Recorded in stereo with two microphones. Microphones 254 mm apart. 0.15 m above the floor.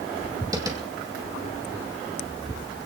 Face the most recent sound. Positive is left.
turn(degrees=-15)  # may be behind; listen again after turning